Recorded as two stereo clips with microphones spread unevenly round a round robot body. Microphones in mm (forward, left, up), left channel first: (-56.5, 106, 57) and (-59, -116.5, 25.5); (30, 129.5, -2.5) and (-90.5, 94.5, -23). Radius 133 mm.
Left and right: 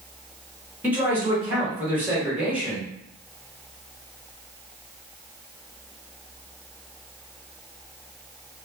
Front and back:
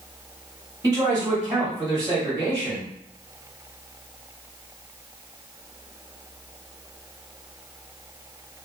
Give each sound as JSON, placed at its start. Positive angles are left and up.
{"t": 0.8, "sound": "a man speaking", "azimuth_deg": -150, "distance_m": 1.4}